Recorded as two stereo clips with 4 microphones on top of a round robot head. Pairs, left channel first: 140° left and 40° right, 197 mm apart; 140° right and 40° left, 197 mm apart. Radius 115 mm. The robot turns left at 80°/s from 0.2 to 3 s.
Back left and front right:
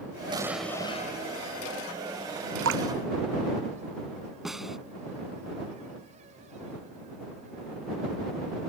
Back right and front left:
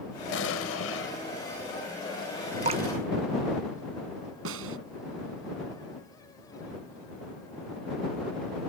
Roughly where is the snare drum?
Ahead left.